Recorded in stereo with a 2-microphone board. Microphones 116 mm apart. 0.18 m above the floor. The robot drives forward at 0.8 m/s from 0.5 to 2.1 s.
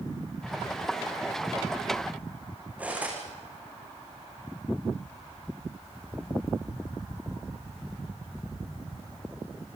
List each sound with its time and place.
2.8 s cutlery clinking: 15° right (ahead or behind), 7 m